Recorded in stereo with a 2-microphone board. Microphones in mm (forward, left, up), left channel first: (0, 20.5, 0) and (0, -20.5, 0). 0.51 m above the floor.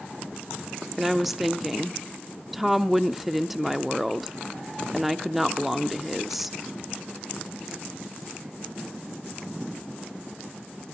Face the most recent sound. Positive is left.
turn(degrees=-5)  # may be behind; listen again after turning